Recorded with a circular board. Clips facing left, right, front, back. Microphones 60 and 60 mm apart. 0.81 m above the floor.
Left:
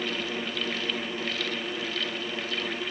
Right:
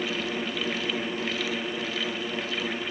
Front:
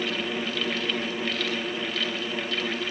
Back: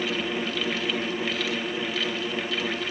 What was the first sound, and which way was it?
Only background noise.